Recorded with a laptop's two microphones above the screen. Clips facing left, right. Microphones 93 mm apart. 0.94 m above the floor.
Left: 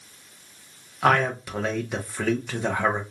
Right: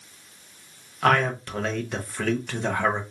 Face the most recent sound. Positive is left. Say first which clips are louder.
# even
turn(degrees=5)  # may be behind; listen again after turning